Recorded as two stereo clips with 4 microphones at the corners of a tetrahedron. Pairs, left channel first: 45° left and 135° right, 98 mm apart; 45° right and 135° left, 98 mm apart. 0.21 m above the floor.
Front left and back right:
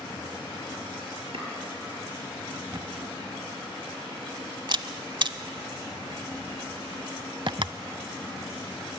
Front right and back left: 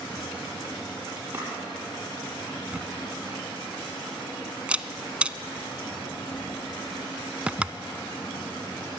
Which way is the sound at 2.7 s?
150° right.